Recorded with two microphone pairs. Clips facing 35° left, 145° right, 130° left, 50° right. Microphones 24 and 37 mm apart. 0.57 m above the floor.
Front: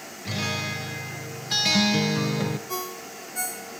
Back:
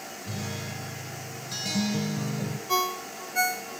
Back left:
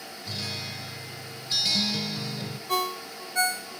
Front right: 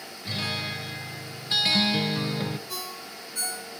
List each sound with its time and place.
0.2 s a guitar: 5° left, 0.6 m
2.7 s a ringtone: 170° left, 0.6 m